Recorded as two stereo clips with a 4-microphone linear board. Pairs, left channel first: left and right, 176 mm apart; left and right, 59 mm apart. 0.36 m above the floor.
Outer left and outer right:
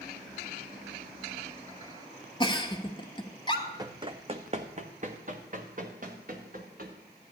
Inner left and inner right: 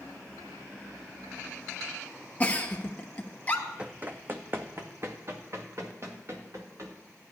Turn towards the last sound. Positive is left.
turn(degrees=-55)  # may be behind; listen again after turning